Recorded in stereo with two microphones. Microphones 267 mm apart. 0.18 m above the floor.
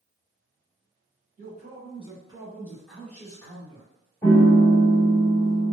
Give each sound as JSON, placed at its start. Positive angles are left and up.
{"t": 1.4, "sound": "a man speaking", "side_deg": -30, "distance_m": 1.8}
{"t": 4.2, "sound": "a piano", "side_deg": 10, "distance_m": 0.6}